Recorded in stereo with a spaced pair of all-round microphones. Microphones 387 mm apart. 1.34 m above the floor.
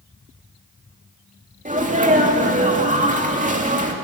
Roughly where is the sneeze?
Centre.